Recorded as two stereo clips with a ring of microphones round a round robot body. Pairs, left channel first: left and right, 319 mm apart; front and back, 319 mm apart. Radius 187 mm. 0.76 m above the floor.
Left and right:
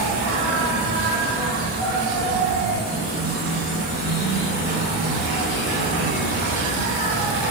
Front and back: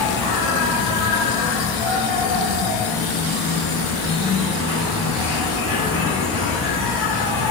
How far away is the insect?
About 1.7 m.